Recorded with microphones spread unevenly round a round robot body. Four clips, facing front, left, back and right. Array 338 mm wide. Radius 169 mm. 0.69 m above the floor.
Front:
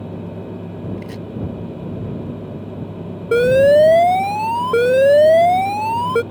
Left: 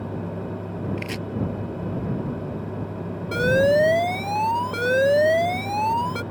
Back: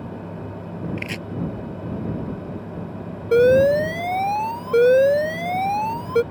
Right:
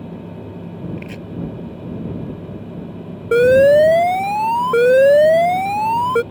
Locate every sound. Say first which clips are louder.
1.0 s chopping: left 1 dB, front 1 dB; 145° left
3.3 s an alarm: right 9 dB, front 3 dB; 30° right